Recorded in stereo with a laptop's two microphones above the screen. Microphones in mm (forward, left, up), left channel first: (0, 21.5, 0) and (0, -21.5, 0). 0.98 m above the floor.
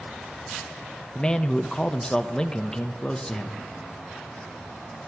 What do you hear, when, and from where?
1.1 s a man speaking: 20° left (ahead or behind), 1.0 m